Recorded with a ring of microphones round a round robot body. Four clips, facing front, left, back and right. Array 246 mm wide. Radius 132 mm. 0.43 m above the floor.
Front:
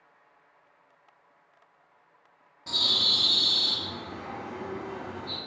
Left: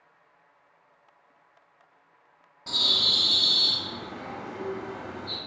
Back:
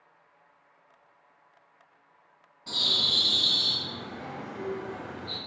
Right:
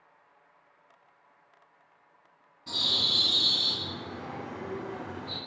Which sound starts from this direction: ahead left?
A bird, at 2.7 s.